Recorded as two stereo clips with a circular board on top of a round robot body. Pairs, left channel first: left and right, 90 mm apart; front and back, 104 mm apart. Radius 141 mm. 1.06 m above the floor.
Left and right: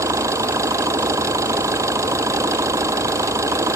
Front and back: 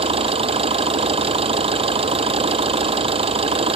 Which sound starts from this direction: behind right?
An engine running, at 0.0 s.